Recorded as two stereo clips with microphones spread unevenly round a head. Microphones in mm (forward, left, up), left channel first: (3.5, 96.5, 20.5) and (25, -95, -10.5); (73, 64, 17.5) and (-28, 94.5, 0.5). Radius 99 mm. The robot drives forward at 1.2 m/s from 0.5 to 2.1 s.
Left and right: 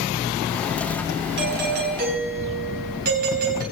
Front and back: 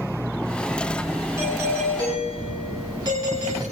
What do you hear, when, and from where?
1.4 s a doorbell: 120° right, 4.5 m; by 3.6 s 130° right, 5 m